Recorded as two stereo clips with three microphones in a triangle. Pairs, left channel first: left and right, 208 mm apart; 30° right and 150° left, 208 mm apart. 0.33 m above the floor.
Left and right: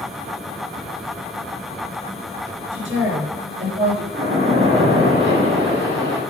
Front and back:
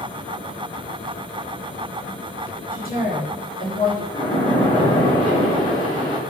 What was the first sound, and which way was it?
A woman speaking, 75° right.